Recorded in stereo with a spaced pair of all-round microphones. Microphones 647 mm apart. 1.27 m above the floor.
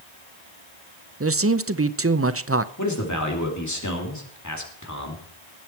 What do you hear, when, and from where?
1.2 s a man speaking: 20° right (ahead or behind), 0.6 m
2.8 s a man speaking: 25° left (ahead or behind), 2.5 m